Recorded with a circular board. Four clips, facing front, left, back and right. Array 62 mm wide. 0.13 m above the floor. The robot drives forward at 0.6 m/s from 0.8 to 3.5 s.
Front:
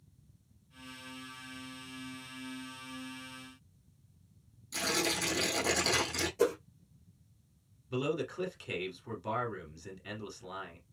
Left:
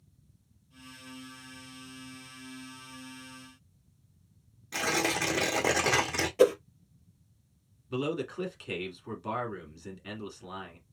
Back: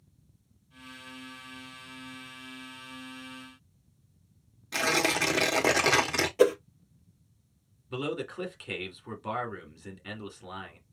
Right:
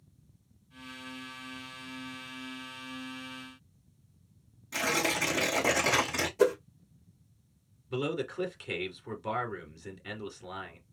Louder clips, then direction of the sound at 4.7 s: Even, back 7 dB; 170° left.